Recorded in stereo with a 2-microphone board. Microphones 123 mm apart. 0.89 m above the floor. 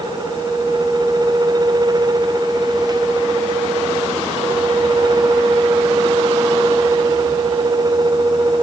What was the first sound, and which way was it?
Only background noise.